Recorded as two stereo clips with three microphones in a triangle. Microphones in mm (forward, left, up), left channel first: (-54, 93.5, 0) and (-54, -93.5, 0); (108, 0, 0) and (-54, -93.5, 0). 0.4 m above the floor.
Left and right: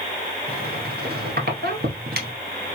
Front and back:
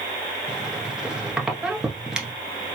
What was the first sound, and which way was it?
A squeak, 65° right.